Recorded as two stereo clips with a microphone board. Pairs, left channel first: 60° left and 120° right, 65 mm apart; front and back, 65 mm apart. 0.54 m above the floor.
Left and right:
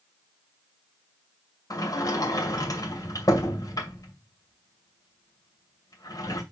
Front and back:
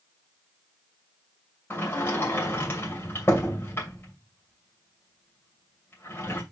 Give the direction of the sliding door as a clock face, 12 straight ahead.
10 o'clock.